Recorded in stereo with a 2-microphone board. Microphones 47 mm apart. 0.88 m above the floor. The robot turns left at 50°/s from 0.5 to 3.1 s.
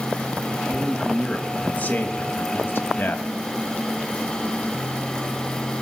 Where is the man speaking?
175° right, 1.2 m; by 3.3 s 65° left, 1.2 m.